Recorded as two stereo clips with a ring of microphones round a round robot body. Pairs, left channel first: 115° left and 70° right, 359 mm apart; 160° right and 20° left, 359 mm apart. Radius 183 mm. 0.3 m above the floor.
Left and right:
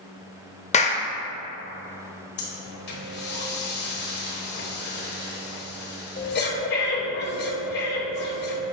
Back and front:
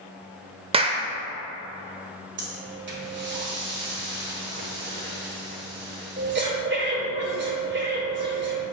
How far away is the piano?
I don't hear a piano.